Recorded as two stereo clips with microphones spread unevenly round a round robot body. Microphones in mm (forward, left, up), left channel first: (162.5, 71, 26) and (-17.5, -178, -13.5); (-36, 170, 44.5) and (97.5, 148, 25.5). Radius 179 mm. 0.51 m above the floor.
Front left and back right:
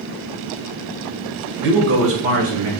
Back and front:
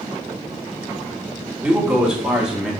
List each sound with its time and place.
1.6 s a man speaking: 80° right, 2.5 m; by 2.7 s 95° right, 4 m